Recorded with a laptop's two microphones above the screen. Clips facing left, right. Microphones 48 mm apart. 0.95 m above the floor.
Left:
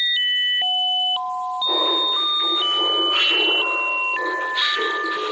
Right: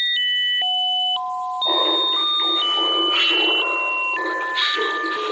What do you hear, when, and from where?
1.6 s laughter: 50° right (ahead or behind), 5.5 m; by 5.3 s 30° right (ahead or behind), 8 m